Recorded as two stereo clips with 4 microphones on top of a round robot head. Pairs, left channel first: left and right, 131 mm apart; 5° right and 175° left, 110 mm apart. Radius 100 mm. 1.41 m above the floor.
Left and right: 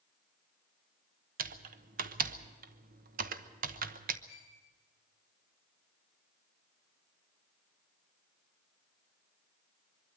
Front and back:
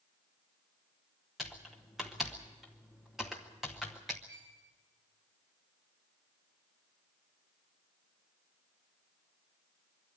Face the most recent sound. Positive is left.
turn(degrees=-170)